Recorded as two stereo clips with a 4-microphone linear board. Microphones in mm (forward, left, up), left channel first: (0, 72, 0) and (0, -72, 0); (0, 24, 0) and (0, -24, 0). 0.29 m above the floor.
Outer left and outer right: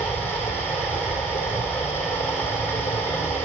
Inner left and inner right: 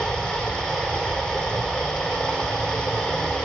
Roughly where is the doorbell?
No doorbell in this recording.